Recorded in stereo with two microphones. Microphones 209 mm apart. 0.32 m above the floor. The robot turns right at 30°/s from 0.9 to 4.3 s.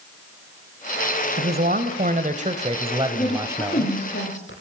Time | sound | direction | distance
1.4 | a man speaking | 80° right | 1.6 m
3.1 | a woman speaking | 20° left | 10 m